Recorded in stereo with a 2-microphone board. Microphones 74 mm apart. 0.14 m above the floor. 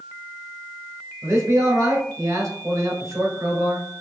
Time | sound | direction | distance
1.2 | a man speaking | 45° right (ahead or behind) | 1.7 m